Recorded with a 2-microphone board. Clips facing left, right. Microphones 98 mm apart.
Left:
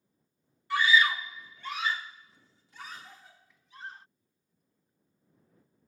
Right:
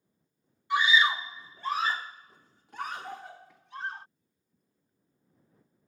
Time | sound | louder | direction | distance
0.7 | a scream | even | 20° right (ahead or behind) | ?